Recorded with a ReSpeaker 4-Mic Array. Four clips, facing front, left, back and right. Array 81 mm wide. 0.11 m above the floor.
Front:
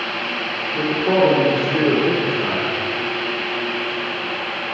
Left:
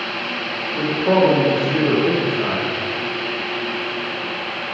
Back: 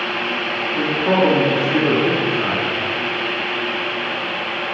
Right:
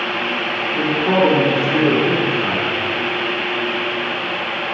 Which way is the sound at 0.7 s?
155° right.